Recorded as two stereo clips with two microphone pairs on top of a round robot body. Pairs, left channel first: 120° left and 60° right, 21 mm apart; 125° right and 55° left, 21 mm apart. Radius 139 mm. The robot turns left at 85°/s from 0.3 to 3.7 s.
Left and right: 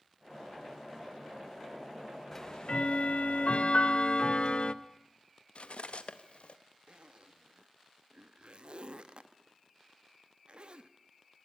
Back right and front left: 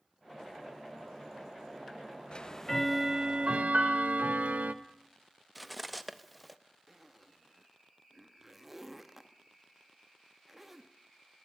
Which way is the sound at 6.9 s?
25° right.